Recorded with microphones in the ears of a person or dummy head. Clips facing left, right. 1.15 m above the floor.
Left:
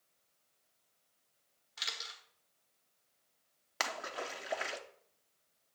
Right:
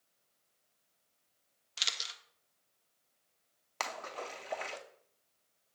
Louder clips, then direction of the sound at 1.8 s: Right 1 dB; 35° right (ahead or behind).